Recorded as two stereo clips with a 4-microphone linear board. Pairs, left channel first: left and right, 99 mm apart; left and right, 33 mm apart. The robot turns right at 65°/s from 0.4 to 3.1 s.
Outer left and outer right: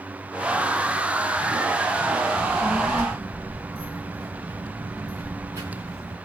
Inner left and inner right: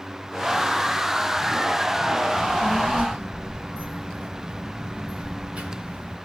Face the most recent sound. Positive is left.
turn(degrees=-30)  # may be behind; listen again after turning